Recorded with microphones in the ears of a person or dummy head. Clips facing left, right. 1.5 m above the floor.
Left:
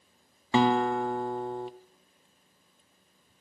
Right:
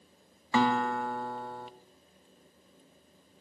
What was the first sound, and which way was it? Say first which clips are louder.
A guitar: left 3 dB; 20° left (ahead or behind).